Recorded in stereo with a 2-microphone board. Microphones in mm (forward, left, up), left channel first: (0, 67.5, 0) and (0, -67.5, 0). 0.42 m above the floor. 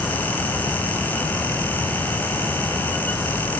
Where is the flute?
I don't hear a flute.